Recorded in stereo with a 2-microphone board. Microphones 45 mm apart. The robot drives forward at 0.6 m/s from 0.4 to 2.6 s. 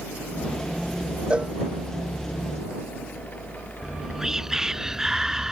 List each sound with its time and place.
1.3 s a cowbell: 25° right (ahead or behind)
3.8 s whispering: 10° right (ahead or behind)